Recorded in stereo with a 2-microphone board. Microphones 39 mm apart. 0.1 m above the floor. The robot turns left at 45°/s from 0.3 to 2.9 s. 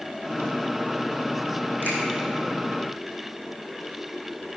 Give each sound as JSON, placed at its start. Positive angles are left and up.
{"t": 1.8, "sound": "a finger snap", "side_deg": -50, "distance_m": 4.5}